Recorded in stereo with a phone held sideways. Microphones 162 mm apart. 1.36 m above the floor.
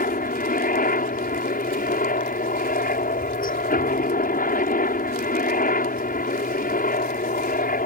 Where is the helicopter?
60° left (ahead or behind).